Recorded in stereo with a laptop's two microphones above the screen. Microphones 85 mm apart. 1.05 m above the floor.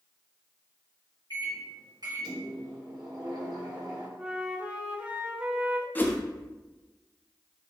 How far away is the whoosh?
About 0.5 m.